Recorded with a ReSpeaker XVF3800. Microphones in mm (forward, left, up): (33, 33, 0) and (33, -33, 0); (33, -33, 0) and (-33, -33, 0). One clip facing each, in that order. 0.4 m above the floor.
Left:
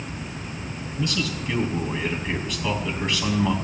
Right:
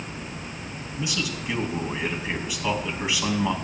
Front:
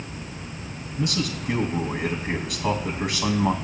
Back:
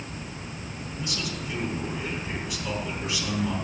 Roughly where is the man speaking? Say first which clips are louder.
Left 3 dB, front 7 dB; ahead.